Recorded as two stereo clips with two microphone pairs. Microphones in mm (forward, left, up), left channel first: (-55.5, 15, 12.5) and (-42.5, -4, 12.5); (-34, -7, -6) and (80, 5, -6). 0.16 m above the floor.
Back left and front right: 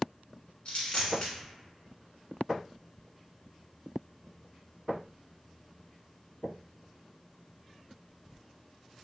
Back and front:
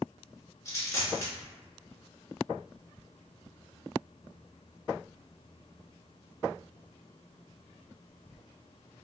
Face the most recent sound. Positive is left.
turn(degrees=135)